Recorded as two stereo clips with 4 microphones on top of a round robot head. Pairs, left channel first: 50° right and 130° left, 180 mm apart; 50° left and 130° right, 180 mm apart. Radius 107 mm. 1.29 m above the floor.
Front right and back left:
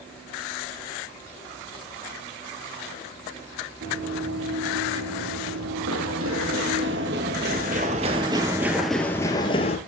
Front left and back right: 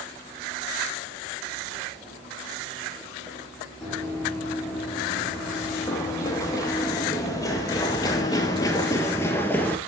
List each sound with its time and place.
3.8 s running footsteps: 130° left, 4 m; by 9.8 s 25° right, 1.4 m